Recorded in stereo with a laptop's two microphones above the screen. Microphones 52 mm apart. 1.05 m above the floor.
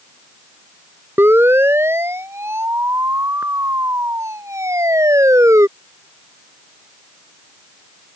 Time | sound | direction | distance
1.2 | a siren | 45° right (ahead or behind) | ?